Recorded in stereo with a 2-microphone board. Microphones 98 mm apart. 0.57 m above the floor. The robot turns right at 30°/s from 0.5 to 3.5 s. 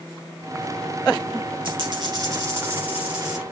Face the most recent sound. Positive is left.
turn(degrees=0)